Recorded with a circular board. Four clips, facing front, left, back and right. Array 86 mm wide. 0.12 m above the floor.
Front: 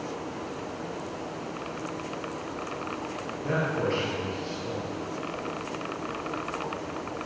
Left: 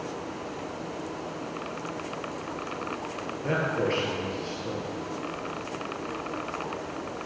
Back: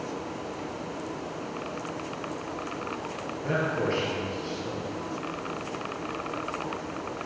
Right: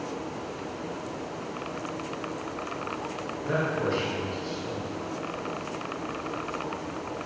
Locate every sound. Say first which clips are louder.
3.4 s a man speaking: left 1 dB, even; 90° left, 3 m